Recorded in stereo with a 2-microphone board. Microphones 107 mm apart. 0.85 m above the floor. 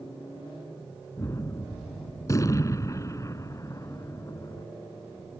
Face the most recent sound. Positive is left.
turn(degrees=30)  # may be behind; listen again after turning